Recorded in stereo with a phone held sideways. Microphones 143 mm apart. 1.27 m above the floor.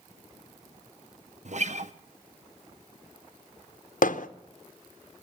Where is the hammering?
70° left (ahead or behind), 0.6 m.